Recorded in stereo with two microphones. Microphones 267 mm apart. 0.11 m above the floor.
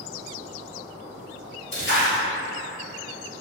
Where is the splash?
50° left (ahead or behind), 1.8 m.